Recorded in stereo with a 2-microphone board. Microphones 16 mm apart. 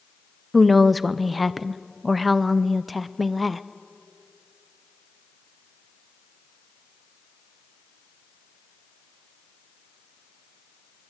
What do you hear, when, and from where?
0.5 s a woman speaking: 5° left (ahead or behind), 0.8 m